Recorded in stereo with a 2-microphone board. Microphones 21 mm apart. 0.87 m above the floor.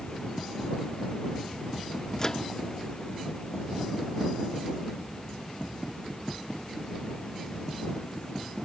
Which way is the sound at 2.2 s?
25° left (ahead or behind).